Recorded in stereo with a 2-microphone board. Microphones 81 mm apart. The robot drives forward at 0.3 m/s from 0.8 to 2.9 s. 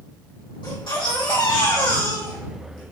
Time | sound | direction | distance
0.6 | a baby crying | 75° left (ahead or behind) | 3.5 m